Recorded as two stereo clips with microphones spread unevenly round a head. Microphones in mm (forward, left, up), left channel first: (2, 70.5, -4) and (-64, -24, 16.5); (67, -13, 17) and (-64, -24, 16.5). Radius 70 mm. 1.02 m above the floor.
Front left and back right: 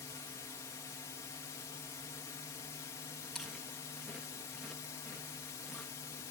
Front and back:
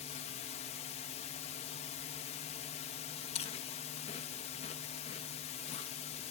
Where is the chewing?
35° right.